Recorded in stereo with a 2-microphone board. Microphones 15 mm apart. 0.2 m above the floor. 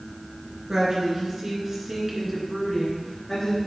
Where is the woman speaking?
40° right (ahead or behind), 3.5 m; by 3.6 s 35° left (ahead or behind), 2.5 m.